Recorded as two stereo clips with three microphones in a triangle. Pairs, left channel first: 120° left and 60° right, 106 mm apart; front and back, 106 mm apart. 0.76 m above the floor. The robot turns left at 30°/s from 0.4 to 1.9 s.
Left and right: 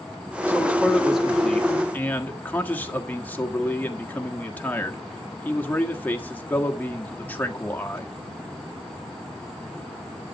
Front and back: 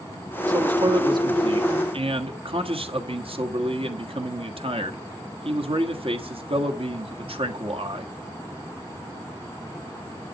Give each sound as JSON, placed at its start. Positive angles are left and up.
{"t": 0.5, "sound": "a man speaking", "azimuth_deg": -125, "distance_m": 1.5}